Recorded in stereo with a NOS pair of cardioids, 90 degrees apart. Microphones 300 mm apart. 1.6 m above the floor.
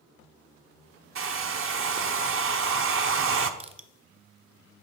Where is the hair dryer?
45° right, 0.8 m.